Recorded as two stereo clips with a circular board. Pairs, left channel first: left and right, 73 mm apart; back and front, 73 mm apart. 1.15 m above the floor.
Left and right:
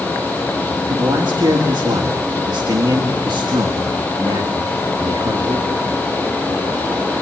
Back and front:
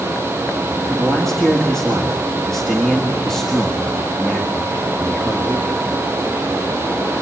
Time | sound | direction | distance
0.9 | a man speaking | 95° right | 1.8 m